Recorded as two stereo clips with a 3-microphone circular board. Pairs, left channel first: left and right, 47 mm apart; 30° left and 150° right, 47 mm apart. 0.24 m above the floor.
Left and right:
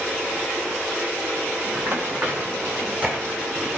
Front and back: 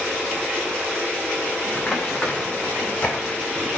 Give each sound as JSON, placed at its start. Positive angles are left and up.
{"t": 1.8, "sound": "running footsteps", "azimuth_deg": -50, "distance_m": 3.0}